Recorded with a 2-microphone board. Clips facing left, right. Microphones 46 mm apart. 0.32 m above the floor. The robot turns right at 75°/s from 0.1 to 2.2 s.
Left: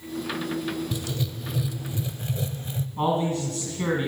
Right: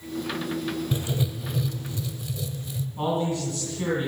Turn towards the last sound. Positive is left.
turn(degrees=15)  # may be behind; listen again after turning